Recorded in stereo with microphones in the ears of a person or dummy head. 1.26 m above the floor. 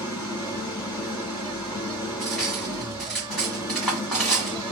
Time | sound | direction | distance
0.0 | an engine running | 20° left (ahead or behind) | 1.9 m
2.2 | cutlery clinking | 5° left (ahead or behind) | 2 m